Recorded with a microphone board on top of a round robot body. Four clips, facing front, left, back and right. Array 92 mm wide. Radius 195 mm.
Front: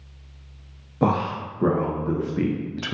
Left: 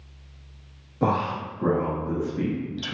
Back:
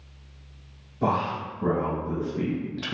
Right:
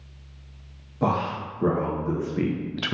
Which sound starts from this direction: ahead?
A man speaking, at 1.0 s.